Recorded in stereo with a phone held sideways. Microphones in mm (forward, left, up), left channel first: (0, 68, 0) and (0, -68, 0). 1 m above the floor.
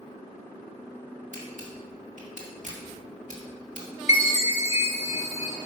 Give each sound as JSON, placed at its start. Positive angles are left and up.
{"t": 1.3, "sound": "a camera shutter", "side_deg": -65, "distance_m": 1.9}
{"t": 4.1, "sound": "a chime", "side_deg": 55, "distance_m": 2.5}